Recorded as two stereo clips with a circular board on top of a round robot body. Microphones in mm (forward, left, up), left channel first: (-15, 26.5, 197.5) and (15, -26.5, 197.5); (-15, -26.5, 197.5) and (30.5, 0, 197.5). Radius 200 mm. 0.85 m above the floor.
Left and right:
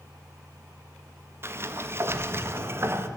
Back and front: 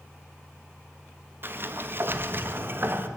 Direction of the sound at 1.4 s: 15° right.